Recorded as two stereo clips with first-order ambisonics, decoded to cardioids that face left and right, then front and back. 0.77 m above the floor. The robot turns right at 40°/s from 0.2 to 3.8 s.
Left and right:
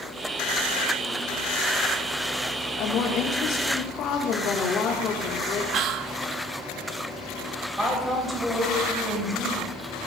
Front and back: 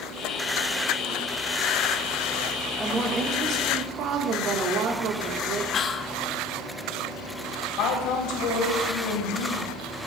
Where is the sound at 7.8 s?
10° right, 3.5 m.